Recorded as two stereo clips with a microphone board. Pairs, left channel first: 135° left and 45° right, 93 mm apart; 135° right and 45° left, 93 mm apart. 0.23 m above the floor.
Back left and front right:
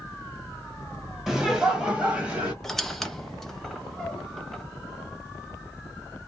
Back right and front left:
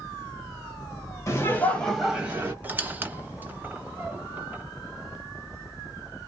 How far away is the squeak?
About 0.5 m.